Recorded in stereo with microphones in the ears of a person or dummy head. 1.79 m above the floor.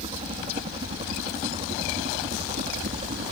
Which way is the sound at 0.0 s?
25° right (ahead or behind).